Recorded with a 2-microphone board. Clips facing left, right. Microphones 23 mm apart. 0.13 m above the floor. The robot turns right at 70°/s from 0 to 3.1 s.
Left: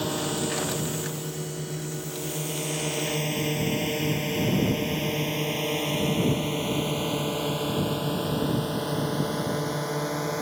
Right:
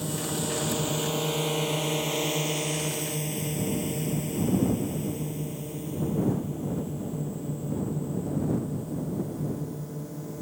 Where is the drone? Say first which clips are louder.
Left 3 dB; 35° left (ahead or behind); by 10.4 s 60° left (ahead or behind).